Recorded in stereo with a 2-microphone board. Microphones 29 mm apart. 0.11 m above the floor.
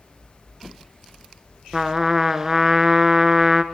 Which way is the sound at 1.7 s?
15° right (ahead or behind).